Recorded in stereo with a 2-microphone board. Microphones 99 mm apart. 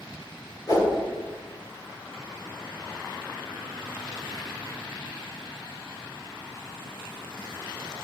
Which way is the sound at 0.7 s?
40° left (ahead or behind).